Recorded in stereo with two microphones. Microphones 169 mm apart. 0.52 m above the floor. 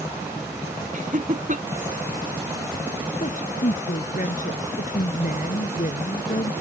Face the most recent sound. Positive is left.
turn(degrees=50)  # may be behind; listen again after turning